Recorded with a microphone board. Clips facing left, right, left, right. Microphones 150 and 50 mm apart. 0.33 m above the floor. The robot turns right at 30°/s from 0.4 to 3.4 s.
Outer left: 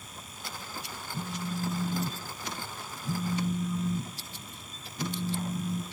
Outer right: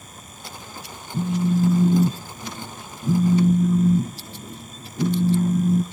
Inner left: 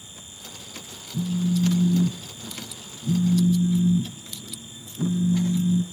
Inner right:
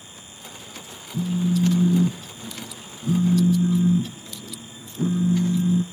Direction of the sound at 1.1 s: 125° right.